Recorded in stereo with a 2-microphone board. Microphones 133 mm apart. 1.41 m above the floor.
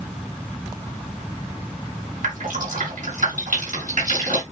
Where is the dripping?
75° right (ahead or behind), 7.5 m.